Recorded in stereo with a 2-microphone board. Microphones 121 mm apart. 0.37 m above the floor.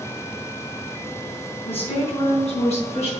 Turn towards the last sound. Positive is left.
turn(degrees=60)  # may be behind; listen again after turning